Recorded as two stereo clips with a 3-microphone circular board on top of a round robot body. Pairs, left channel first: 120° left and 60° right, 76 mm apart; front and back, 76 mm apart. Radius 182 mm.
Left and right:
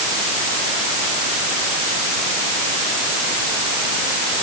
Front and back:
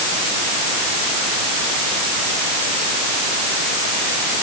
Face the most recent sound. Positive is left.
No sound to turn to.